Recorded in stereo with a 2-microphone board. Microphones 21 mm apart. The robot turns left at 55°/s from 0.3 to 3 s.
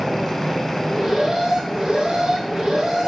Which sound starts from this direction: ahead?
An alarm, at 0.8 s.